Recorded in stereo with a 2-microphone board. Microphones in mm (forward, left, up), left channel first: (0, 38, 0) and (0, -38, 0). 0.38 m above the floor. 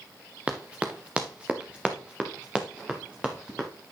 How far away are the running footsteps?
About 1.8 m.